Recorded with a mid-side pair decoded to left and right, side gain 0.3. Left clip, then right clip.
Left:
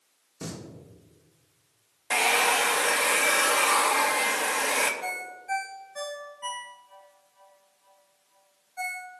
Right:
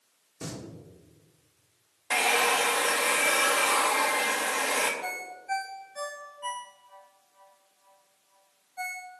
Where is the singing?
25° left, 2.5 m.